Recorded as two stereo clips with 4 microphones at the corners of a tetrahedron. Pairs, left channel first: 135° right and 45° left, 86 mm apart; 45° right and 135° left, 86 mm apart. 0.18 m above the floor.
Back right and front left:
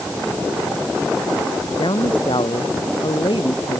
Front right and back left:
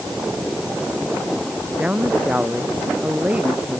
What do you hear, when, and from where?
1.8 s a man speaking: 150° right